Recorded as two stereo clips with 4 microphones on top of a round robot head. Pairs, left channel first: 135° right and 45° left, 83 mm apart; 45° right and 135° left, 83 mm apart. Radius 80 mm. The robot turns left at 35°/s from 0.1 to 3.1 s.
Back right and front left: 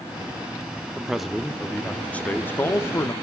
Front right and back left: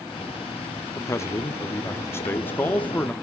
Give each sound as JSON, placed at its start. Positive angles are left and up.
{"t": 0.9, "sound": "a man speaking", "azimuth_deg": -35, "distance_m": 0.8}